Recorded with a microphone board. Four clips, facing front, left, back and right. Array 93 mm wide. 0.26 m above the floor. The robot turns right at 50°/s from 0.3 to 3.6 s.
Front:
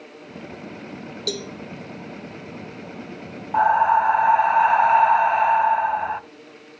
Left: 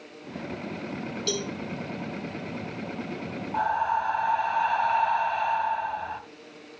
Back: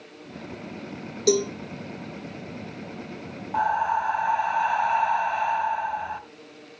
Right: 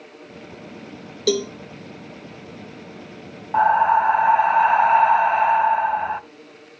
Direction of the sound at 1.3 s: 110° right.